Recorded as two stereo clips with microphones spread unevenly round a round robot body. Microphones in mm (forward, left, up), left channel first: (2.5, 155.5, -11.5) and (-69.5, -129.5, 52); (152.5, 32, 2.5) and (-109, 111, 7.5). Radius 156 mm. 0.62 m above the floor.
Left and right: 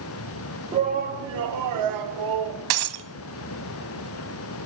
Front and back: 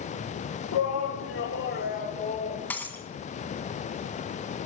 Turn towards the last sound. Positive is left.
turn(degrees=-100)